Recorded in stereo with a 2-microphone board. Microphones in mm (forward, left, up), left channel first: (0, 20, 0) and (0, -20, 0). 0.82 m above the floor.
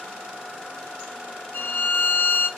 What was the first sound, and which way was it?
A violin, 70° left (ahead or behind).